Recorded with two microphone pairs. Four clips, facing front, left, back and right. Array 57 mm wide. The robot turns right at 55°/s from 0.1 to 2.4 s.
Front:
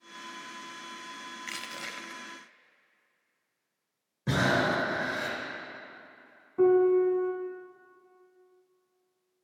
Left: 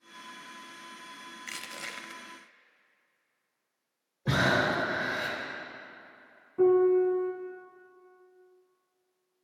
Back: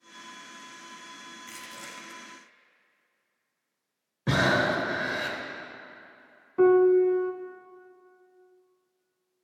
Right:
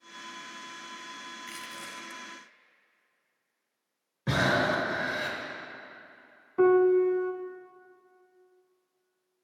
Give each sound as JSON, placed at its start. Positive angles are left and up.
{"t": 1.5, "sound": "crushing", "azimuth_deg": 30, "distance_m": 0.5}
{"t": 4.3, "sound": "breathing", "azimuth_deg": -165, "distance_m": 1.3}
{"t": 6.6, "sound": "a piano", "azimuth_deg": -120, "distance_m": 0.5}